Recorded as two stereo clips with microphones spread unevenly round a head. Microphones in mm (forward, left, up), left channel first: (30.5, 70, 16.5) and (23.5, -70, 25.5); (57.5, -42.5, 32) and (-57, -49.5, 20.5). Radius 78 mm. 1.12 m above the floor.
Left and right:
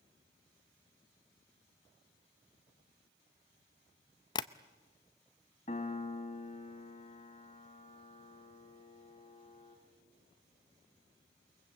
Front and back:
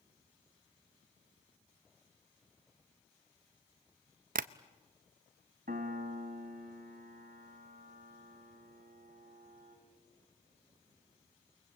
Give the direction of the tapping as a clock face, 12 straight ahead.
7 o'clock.